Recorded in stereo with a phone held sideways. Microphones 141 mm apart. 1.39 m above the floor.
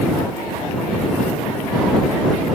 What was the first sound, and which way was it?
Only background noise.